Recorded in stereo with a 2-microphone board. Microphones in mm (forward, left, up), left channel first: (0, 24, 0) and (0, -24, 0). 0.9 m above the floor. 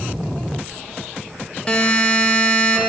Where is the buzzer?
20° left (ahead or behind), 1.0 m.